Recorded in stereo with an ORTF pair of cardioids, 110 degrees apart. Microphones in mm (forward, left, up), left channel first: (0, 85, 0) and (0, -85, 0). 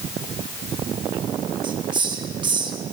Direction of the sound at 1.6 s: 25° right.